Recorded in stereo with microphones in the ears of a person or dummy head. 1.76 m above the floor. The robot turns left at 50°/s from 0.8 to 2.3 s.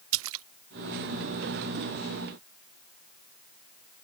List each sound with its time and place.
0.1 s a splash: 80° right